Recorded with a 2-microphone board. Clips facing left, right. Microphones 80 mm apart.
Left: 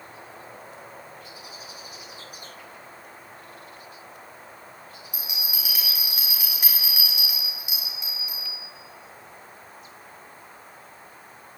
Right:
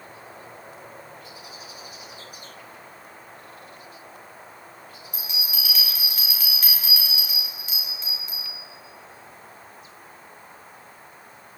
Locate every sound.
5.1 s a bell: 15° left (ahead or behind), 5 m